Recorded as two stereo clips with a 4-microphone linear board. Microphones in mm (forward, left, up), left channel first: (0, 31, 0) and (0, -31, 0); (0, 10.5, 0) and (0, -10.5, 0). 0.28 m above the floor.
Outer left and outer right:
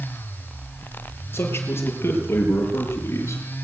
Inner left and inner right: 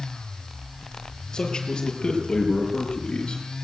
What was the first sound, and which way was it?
A man speaking, 40° left (ahead or behind).